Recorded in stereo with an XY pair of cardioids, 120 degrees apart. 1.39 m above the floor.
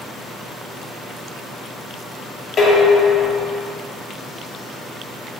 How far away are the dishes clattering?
About 1.3 m.